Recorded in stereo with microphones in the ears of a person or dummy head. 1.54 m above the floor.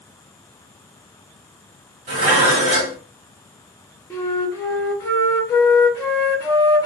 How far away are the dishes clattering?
About 1.3 m.